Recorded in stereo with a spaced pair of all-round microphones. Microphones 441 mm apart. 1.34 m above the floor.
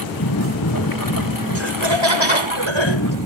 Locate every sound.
0.0 s a lawn mower: 45° left (ahead or behind); by 3.3 s 40° left (ahead or behind)
1.6 s laughter: 75° right (ahead or behind)